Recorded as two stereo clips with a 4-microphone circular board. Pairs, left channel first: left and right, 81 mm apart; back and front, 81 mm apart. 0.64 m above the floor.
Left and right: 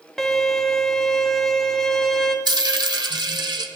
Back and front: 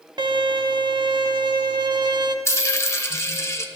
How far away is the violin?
About 0.8 m.